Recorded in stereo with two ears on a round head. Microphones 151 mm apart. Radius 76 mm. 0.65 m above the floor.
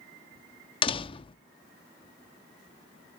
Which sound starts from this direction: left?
A door slam, at 0.8 s.